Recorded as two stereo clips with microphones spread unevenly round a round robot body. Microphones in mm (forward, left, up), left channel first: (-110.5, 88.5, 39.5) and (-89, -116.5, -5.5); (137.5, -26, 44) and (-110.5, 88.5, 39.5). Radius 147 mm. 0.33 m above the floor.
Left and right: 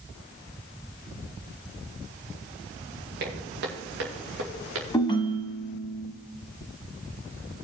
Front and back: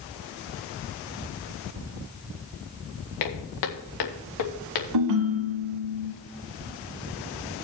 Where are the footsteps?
25° right, 2 m; by 4.8 s 35° right, 3 m.